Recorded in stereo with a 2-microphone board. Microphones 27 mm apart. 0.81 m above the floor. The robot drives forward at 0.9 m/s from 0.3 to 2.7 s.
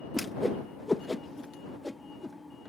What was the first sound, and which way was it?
A whoosh, 5° right (ahead or behind).